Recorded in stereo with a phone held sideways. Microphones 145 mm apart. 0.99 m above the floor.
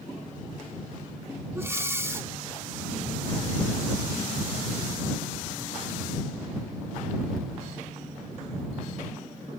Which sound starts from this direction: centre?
Breathing, at 1.6 s.